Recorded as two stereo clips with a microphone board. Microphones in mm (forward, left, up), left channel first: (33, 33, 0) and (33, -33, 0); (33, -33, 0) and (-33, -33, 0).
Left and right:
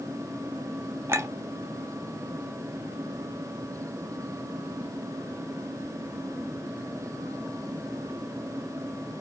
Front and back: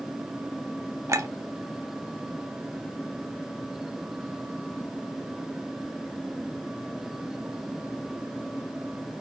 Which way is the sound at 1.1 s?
135° right.